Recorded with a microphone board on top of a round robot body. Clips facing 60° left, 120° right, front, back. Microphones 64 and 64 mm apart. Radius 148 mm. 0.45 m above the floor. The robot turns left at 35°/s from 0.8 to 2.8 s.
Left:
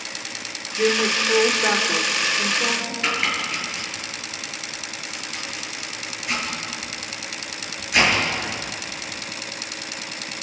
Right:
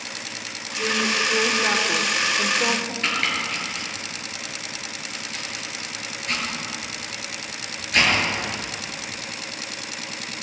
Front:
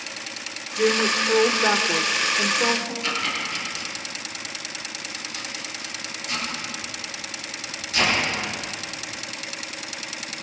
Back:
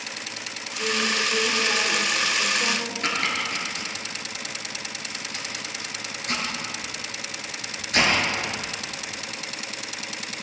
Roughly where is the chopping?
Behind left.